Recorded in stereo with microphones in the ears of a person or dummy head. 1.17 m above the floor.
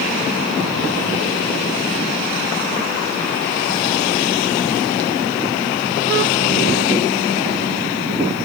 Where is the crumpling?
No crumpling in this recording.